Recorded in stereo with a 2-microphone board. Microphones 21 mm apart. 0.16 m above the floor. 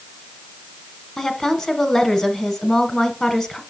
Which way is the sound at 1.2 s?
25° left (ahead or behind).